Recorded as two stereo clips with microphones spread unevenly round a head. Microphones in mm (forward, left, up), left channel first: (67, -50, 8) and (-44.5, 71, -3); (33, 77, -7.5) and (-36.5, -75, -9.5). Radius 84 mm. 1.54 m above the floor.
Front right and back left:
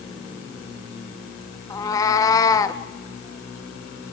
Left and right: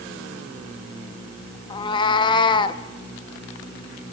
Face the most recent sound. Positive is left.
turn(degrees=10)